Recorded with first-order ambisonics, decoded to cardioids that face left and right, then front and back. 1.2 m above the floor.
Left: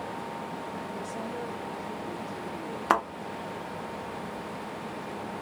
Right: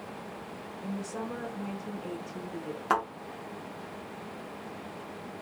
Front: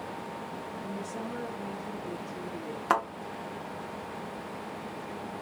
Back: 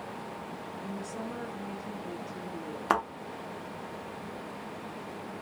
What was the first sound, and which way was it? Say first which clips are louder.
A woman speaking: left 2 dB, front 1 dB; 105° right.